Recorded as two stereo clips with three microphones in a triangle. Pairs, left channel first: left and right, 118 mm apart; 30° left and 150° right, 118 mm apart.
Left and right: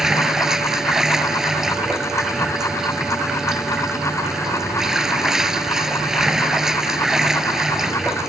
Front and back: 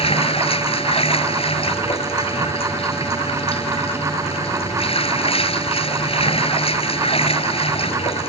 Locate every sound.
0.0 s running water: 5° right